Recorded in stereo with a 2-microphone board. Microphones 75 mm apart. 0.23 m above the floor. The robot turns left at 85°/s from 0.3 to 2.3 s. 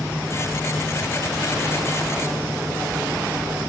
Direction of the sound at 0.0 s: 150° left.